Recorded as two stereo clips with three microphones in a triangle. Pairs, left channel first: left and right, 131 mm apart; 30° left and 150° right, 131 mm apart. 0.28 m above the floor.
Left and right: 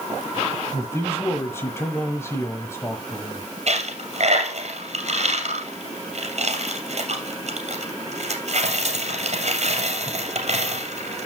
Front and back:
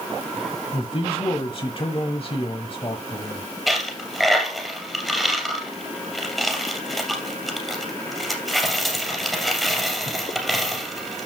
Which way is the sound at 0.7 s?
30° left.